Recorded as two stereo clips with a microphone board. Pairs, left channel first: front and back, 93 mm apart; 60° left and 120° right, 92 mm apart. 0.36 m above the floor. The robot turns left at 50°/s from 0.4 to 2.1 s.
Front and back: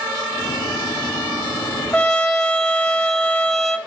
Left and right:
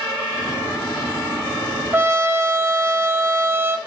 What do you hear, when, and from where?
1.9 s a trumpet: 75° right, 0.7 m; by 3.8 s 85° right, 0.7 m